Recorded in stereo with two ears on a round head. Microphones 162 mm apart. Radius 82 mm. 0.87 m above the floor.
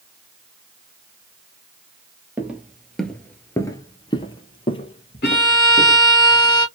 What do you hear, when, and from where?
2.4 s footsteps: 10° right (ahead or behind), 1.0 m; by 6.0 s 35° left (ahead or behind), 1.8 m
5.2 s a violin: 60° left (ahead or behind), 1.7 m